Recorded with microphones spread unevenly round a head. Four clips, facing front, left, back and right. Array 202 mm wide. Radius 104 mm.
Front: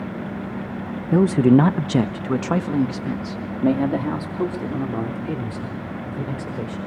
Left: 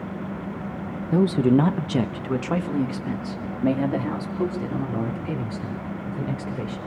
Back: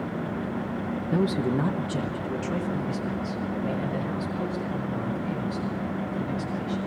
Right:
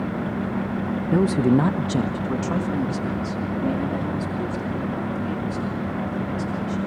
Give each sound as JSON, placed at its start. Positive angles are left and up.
{"t": 1.1, "sound": "a man speaking", "azimuth_deg": -15, "distance_m": 0.8}